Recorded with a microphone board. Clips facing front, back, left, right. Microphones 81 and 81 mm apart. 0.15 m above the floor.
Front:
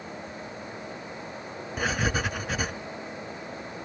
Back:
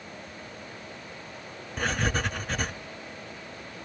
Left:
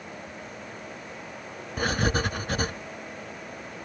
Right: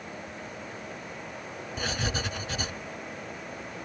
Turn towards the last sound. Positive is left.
turn(degrees=85)